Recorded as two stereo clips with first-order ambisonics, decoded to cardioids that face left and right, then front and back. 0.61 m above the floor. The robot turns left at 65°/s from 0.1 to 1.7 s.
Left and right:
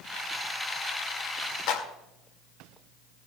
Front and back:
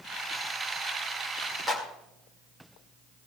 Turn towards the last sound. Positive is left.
turn(degrees=100)